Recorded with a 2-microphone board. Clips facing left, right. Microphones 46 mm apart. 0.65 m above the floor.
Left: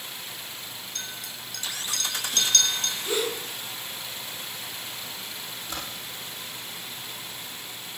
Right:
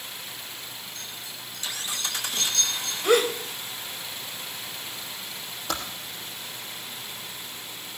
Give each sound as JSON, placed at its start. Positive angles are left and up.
{"t": 0.9, "sound": "a clink", "side_deg": 70, "distance_m": 7.5}
{"t": 3.0, "sound": "a gasp", "side_deg": -75, "distance_m": 3.0}
{"t": 5.7, "sound": "typing on a keyboard", "side_deg": -75, "distance_m": 5.0}